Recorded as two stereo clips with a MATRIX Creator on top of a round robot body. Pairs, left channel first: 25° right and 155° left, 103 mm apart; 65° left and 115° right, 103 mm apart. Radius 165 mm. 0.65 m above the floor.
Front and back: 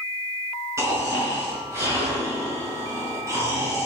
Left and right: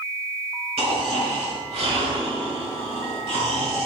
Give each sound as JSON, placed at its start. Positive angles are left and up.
{"t": 0.8, "sound": "snoring", "azimuth_deg": -140, "distance_m": 5.5}